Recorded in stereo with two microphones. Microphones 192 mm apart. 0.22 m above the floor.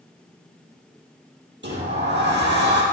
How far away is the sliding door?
About 4.5 m.